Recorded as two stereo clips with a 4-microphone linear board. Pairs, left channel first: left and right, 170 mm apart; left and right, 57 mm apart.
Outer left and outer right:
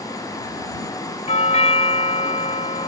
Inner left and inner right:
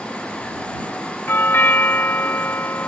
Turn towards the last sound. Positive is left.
turn(degrees=40)  # may be behind; listen again after turning